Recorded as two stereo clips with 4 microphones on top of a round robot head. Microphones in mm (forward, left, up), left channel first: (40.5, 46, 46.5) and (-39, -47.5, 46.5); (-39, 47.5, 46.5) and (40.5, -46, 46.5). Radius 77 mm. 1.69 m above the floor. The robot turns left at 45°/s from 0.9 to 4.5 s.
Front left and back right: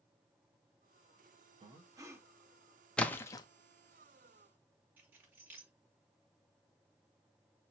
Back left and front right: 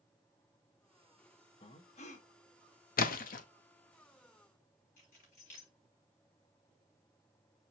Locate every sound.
1.6 s breathing: 175° right, 1.1 m; by 2.3 s 155° left, 1.1 m
3.0 s a splash: 135° left, 0.7 m; by 3.5 s 110° left, 0.7 m
5.0 s keys jangling: 155° left, 3 m